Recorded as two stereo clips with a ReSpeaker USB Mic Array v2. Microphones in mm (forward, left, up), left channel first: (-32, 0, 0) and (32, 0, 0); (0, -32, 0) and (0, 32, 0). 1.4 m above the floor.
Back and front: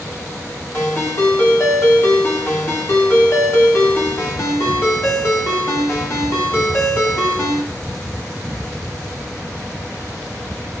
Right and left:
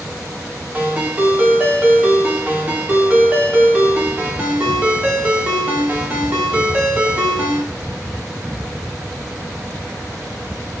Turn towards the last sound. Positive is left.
turn(degrees=145)